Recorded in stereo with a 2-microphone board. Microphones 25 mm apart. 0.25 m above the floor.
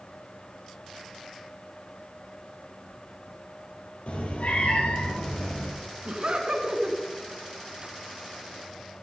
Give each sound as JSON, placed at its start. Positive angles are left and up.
{"t": 4.1, "sound": "a cat meowing", "side_deg": 60, "distance_m": 3.5}
{"t": 6.0, "sound": "laughter", "side_deg": -45, "distance_m": 3.5}